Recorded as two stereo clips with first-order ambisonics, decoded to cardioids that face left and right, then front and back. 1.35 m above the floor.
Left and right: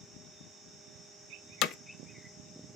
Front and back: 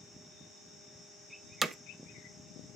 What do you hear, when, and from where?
1.6 s hammering: 110° left, 0.6 m